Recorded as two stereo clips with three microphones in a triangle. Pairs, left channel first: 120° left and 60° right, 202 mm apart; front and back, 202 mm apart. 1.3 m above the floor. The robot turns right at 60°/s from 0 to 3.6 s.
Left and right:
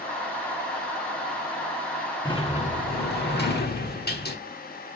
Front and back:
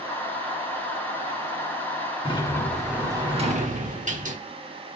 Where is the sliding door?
55° left, 1.2 m; by 4.4 s 135° left, 1.2 m.